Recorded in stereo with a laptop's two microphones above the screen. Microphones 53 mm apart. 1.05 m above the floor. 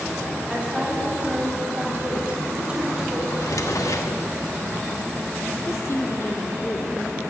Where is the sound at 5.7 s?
55° left (ahead or behind), 2.5 m.